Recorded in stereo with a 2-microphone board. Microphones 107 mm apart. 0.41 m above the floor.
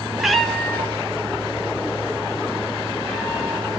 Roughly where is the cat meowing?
Centre.